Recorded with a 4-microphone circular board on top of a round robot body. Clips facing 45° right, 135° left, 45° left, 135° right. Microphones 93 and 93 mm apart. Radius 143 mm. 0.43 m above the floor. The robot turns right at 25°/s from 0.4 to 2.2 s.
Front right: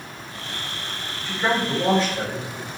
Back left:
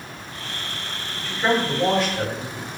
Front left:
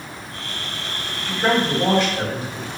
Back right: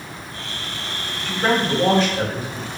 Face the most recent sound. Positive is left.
turn(degrees=-90)